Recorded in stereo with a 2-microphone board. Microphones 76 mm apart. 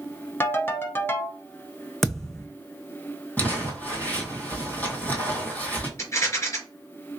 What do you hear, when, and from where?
0.4 s a ringtone: 30° left (ahead or behind), 0.7 m
2.0 s a thud: 5° left (ahead or behind), 0.6 m
3.4 s crumpling: 20° left (ahead or behind), 1.8 m
6.0 s a rattle: 40° left (ahead or behind), 3 m